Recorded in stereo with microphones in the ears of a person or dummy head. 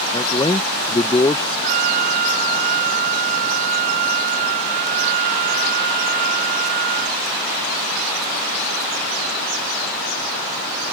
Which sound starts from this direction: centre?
A man speaking, at 0.1 s.